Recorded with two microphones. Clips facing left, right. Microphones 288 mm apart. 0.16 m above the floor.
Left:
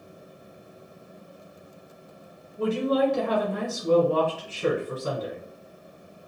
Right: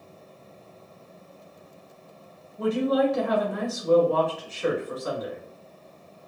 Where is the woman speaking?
30° left (ahead or behind), 1.3 m.